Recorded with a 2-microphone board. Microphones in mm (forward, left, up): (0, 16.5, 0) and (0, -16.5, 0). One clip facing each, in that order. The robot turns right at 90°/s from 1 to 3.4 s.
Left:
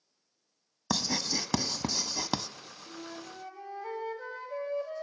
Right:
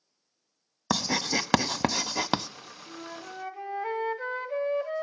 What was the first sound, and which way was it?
Writing, 25° right (ahead or behind).